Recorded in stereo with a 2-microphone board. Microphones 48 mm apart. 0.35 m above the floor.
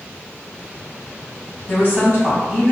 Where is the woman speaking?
50° left (ahead or behind), 1.8 m.